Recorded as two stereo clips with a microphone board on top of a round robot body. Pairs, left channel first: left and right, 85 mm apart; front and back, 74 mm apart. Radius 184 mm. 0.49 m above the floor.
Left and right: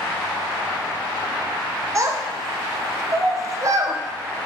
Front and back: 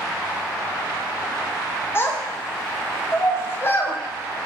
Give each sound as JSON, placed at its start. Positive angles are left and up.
{"t": 1.9, "sound": "a child speaking", "azimuth_deg": -50, "distance_m": 0.6}